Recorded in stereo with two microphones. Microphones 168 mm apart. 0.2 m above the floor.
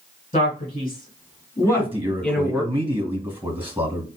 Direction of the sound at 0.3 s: 40° left (ahead or behind).